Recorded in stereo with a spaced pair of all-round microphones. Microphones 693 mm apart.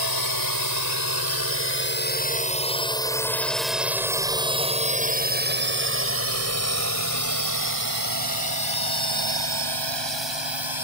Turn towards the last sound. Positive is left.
turn(degrees=-40)  # may be behind; listen again after turning